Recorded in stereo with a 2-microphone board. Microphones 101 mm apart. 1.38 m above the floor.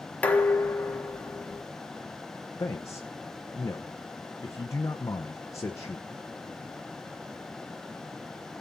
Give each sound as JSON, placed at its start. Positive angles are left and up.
{"t": 0.2, "sound": "dishes clattering", "side_deg": 15, "distance_m": 1.6}
{"t": 2.6, "sound": "a man speaking", "side_deg": 30, "distance_m": 0.8}